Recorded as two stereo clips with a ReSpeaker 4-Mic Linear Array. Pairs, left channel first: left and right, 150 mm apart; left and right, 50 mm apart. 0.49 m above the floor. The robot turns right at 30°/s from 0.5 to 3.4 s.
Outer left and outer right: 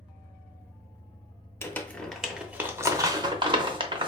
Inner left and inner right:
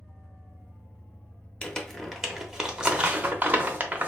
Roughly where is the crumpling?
Centre.